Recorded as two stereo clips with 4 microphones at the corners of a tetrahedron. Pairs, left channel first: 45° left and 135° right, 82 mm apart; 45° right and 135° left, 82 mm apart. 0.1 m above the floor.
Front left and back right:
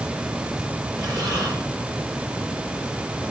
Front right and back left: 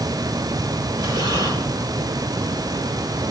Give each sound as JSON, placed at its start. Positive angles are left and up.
{"t": 1.0, "sound": "breathing", "azimuth_deg": 180, "distance_m": 9.5}